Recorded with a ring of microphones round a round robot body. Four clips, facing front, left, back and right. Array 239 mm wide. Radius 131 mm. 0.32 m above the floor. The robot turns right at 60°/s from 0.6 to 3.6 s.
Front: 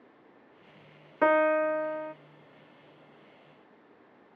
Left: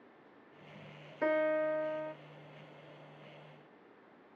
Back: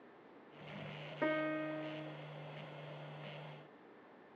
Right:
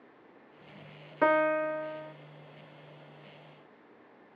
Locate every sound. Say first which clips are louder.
1.2 s a piano: right 5 dB, front 14 dB; 40° right, 0.5 m; by 2.1 s 15° left, 0.5 m